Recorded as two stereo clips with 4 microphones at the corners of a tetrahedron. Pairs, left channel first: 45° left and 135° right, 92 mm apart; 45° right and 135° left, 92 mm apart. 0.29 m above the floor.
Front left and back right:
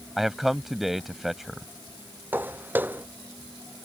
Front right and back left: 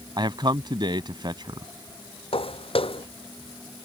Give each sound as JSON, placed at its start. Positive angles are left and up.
{"t": 0.2, "sound": "a man speaking", "azimuth_deg": 140}
{"t": 2.3, "sound": "footsteps", "azimuth_deg": -65}